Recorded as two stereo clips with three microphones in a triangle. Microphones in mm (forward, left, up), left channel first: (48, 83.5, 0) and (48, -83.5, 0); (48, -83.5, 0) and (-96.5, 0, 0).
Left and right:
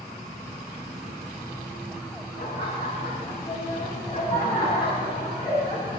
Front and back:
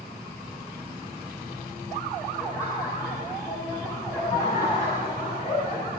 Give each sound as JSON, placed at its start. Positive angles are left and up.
{"t": 2.4, "sound": "laughter", "azimuth_deg": 40, "distance_m": 7.5}